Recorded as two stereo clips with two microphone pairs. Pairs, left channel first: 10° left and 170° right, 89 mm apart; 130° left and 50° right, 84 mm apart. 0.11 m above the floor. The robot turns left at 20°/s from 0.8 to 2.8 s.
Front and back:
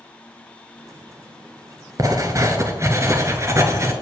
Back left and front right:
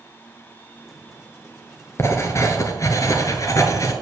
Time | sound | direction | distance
2.0 | writing | 170° left | 0.8 m